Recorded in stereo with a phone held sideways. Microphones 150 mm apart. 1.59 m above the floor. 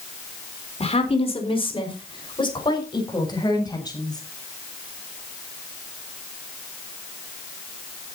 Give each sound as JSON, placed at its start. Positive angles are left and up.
{"t": 0.8, "sound": "a woman speaking", "side_deg": 45, "distance_m": 4.0}